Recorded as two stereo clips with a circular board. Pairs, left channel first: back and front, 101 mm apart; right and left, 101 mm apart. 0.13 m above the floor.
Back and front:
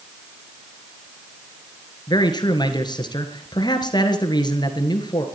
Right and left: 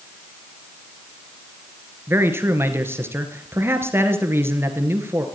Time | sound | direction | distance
2.1 | a man speaking | 150° left | 1.9 m